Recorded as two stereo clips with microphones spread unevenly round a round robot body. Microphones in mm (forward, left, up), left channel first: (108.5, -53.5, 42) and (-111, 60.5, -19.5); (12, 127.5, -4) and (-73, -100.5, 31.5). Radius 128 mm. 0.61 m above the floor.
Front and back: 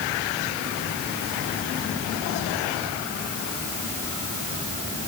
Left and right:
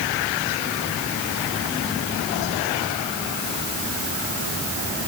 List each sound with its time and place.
Only background noise.